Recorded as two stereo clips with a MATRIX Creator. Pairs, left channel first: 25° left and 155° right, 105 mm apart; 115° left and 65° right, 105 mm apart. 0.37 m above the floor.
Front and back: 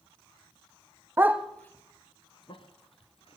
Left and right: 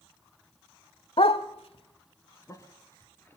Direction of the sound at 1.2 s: 140° left.